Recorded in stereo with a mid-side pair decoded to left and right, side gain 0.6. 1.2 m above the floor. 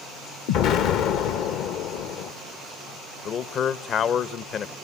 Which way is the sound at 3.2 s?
50° left.